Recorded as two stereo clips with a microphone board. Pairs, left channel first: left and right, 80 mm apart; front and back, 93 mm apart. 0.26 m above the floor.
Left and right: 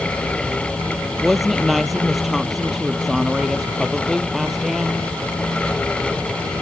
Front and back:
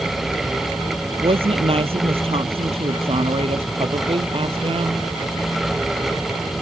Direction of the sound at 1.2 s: Straight behind.